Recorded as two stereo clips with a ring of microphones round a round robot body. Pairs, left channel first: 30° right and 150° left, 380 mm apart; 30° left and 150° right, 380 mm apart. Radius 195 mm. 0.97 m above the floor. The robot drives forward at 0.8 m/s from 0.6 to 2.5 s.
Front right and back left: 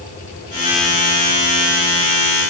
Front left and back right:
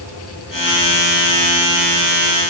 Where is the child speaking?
No child speaking in this recording.